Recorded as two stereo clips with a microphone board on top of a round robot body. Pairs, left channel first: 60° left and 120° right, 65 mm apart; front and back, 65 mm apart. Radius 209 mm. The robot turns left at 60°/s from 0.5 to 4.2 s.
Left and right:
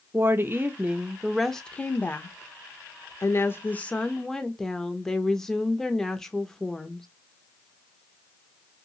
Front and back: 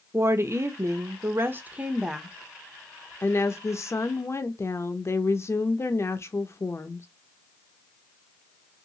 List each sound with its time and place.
0.1 s a woman speaking: 160° right, 0.7 m; by 7.1 s 20° right, 0.7 m